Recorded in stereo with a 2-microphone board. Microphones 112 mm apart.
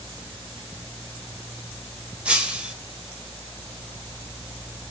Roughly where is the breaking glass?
Centre.